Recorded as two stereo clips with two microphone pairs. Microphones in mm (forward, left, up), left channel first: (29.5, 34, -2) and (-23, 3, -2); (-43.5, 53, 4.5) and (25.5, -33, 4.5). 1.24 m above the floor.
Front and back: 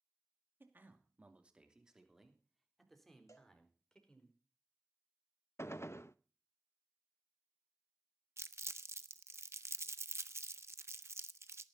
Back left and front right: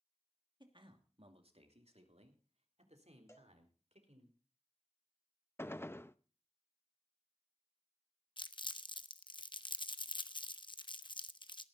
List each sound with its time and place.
0.6 s a man speaking: 95° right, 2.5 m; by 4.3 s 45° right, 5 m
3.3 s a cowbell: 65° left, 2.5 m
5.6 s a gunshot: 65° left, 0.6 m
8.4 s crumpling: 170° left, 0.8 m